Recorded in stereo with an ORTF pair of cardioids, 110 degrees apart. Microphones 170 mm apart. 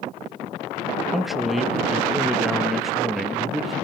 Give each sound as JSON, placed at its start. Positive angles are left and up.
{"t": 1.1, "sound": "a man speaking", "azimuth_deg": 0, "distance_m": 1.4}